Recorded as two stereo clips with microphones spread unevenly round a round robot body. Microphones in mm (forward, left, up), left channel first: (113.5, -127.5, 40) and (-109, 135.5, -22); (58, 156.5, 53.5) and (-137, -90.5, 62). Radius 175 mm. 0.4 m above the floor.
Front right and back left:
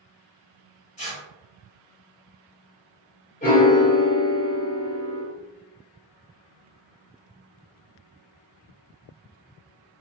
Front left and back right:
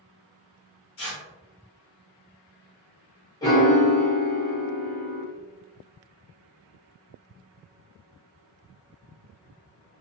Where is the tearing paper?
25° left, 1.3 m.